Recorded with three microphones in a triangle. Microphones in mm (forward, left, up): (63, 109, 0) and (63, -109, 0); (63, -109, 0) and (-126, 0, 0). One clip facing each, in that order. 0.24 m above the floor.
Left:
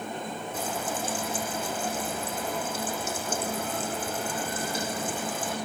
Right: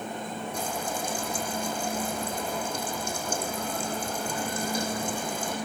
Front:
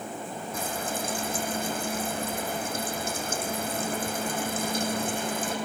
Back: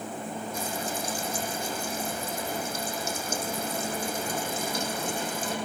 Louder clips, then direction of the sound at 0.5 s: Left 1 dB, front 3 dB; 5° left.